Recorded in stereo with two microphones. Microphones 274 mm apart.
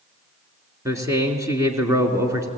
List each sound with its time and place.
0.8 s a man speaking: 10° right (ahead or behind), 3 m